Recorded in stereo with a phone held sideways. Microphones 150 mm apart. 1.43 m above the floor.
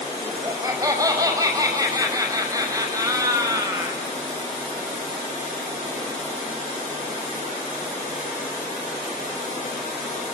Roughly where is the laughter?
Right.